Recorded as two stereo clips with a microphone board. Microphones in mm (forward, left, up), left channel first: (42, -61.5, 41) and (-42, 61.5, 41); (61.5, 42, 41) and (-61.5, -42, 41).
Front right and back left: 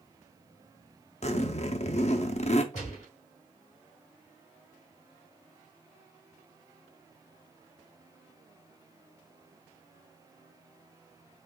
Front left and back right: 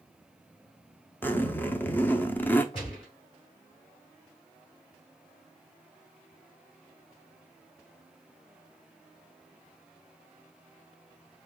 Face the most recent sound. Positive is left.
turn(degrees=-20)